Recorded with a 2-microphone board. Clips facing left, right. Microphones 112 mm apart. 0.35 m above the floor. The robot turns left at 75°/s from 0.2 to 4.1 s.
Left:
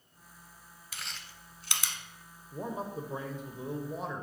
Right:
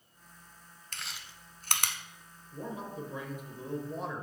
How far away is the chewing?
About 0.8 m.